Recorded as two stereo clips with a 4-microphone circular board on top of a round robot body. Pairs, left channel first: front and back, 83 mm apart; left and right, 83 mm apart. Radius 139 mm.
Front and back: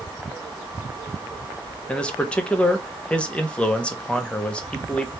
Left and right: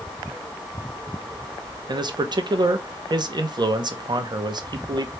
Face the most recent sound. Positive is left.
turn(degrees=-75)